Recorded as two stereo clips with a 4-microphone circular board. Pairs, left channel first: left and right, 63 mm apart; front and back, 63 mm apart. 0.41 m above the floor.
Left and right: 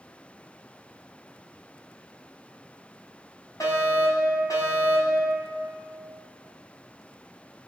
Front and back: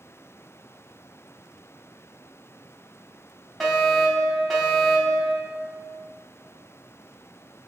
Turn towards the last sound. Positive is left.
turn(degrees=85)